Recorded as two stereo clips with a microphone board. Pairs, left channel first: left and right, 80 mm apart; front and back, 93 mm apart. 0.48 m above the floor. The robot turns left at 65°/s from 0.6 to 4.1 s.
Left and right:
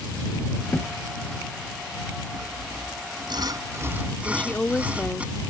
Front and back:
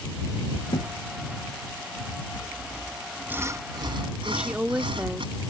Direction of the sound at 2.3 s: 50° right.